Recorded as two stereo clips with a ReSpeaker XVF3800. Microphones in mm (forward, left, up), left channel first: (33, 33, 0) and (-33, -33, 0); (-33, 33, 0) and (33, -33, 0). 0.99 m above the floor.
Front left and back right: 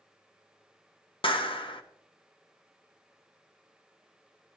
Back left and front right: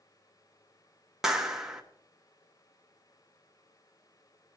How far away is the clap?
About 1.1 m.